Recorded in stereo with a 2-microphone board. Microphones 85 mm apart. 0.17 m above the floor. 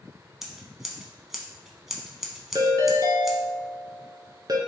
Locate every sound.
0.4 s scissors: 5° right (ahead or behind), 0.6 m
2.5 s a ringtone: 55° right (ahead or behind), 0.8 m